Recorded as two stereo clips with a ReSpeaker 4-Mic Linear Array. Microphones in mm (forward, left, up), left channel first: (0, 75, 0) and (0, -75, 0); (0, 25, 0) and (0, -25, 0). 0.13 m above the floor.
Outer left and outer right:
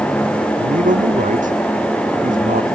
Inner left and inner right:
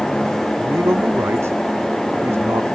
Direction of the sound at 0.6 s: 60° right (ahead or behind).